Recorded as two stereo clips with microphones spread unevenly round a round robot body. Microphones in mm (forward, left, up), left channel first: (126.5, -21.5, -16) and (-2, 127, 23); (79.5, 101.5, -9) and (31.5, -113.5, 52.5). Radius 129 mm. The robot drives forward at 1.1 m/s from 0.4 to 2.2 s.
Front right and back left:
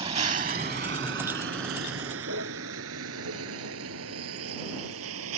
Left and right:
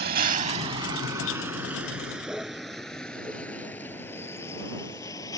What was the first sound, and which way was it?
A vehicle, 160° right.